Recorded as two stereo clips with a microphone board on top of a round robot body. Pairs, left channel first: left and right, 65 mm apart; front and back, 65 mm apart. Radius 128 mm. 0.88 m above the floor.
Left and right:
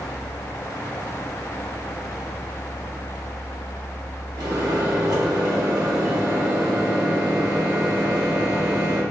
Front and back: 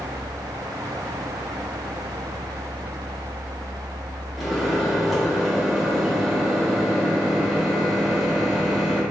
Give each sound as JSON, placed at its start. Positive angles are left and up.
{"t": 4.4, "sound": "a microwave", "azimuth_deg": -85, "distance_m": 1.9}